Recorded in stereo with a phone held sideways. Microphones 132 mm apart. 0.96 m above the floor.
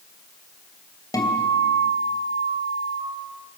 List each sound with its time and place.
1.1 s a guitar: 30° left (ahead or behind), 3 m